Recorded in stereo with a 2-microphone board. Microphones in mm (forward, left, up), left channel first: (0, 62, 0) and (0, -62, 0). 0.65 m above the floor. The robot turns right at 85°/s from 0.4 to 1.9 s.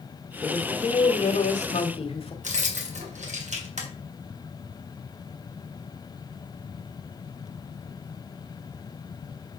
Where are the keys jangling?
75° right (ahead or behind), 1.8 m.